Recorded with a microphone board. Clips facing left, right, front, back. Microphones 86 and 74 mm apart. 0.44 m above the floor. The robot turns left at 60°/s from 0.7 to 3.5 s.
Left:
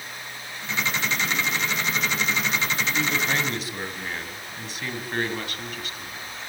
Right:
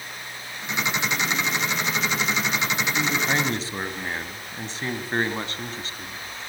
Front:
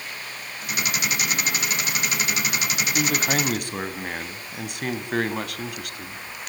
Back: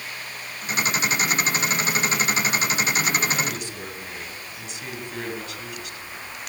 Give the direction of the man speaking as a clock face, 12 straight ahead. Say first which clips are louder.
Right 2 dB, front 1 dB; 12 o'clock.